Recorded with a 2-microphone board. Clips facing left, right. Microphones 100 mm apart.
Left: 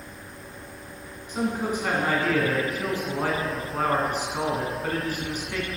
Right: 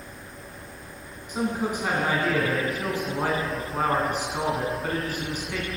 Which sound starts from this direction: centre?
A man speaking, at 1.3 s.